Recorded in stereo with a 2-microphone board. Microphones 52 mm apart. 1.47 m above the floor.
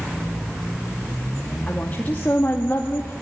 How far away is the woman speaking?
About 2.5 m.